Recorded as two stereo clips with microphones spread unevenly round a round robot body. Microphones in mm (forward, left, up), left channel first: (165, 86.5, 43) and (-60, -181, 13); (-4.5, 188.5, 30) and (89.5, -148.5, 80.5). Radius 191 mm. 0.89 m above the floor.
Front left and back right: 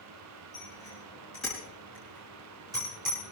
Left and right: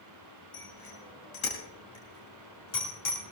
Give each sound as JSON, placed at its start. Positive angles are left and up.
{"t": 0.5, "sound": "a bicycle bell", "azimuth_deg": 130, "distance_m": 7.0}